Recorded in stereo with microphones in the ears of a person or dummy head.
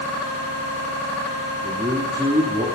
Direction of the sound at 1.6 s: 15° right (ahead or behind).